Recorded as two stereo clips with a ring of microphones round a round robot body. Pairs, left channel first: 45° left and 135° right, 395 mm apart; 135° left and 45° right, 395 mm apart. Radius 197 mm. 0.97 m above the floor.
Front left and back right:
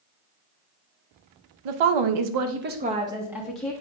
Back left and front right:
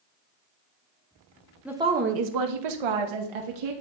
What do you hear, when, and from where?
1.6 s a woman speaking: 135° right, 0.8 m; by 3.7 s 40° right, 1.6 m